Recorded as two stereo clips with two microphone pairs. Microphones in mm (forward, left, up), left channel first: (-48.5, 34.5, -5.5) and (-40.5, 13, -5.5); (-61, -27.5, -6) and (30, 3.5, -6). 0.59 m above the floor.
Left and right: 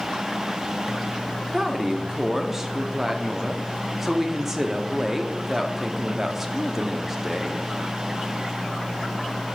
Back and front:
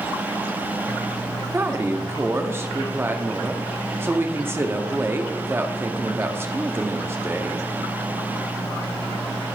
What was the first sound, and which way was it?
A woman speaking, 10° right.